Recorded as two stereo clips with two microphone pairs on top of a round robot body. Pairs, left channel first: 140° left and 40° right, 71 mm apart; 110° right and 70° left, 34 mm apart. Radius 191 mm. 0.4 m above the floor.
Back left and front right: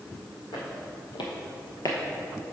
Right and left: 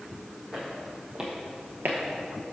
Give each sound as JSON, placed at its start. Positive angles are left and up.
{"t": 0.5, "sound": "footsteps", "azimuth_deg": 165, "distance_m": 1.7}